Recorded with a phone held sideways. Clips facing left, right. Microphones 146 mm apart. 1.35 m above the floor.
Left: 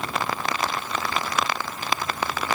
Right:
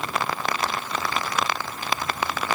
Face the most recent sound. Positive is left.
No sound to turn to.